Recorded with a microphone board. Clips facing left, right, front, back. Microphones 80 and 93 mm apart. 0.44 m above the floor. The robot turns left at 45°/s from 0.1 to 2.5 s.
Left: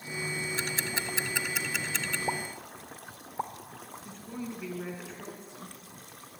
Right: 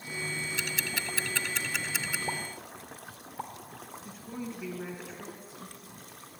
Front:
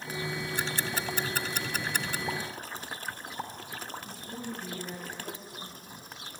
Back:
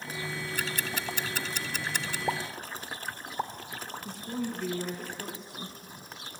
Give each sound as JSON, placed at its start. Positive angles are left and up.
{"t": 0.6, "sound": "ticking", "azimuth_deg": 55, "distance_m": 0.6}
{"t": 2.3, "sound": "a pop", "azimuth_deg": 150, "distance_m": 1.2}
{"t": 4.0, "sound": "a woman speaking", "azimuth_deg": -175, "distance_m": 5.0}